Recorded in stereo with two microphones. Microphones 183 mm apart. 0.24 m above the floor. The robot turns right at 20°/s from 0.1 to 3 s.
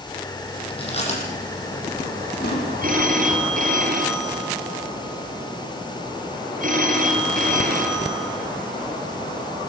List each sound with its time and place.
0.7 s chewing: 30° left (ahead or behind), 8.5 m; by 2.6 s 70° left (ahead or behind), 8.5 m
2.8 s a phone ringing: 50° right (ahead or behind), 4 m